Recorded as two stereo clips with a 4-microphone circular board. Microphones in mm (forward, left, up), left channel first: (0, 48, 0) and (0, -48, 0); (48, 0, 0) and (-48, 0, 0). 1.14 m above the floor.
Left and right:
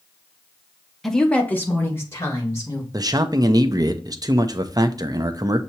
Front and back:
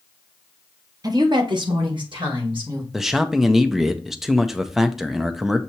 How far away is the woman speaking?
About 0.8 m.